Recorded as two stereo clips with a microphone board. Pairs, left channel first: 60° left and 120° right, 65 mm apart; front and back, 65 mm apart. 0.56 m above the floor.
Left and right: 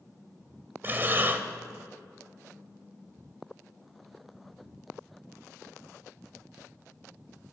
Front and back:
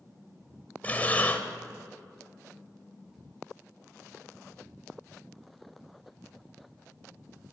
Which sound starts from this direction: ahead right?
Breathing, at 0.8 s.